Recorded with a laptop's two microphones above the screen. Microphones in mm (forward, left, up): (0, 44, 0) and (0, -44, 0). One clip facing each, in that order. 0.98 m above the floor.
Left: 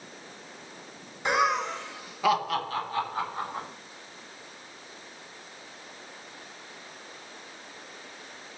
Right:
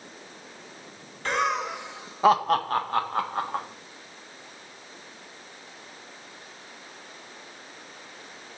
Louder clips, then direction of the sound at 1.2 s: Left 1 dB; 15° left (ahead or behind).